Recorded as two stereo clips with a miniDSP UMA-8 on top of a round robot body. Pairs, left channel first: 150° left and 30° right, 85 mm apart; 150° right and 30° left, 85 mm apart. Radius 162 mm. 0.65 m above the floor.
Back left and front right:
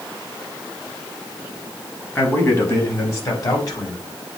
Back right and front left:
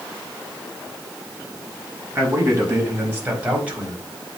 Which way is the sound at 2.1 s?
90° left.